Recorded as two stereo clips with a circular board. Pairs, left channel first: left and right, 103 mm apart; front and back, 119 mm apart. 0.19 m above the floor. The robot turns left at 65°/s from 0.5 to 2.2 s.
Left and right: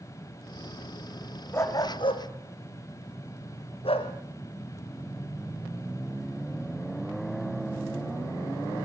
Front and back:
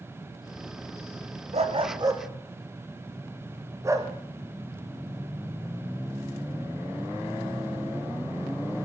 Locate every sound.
1.5 s a dog barking: 160° left, 3.5 m; by 4.1 s 115° left, 3.5 m